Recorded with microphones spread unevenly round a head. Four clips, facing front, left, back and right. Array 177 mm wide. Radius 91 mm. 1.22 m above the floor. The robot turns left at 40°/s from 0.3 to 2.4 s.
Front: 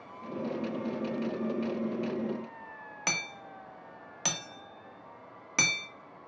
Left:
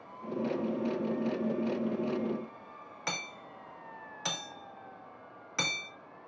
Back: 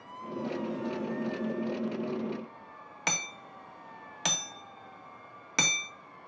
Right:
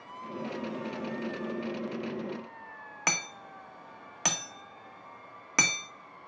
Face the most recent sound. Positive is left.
turn(degrees=-110)